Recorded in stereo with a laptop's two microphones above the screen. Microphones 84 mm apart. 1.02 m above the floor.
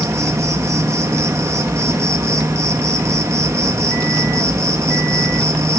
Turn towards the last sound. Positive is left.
turn(degrees=-40)  # may be behind; listen again after turning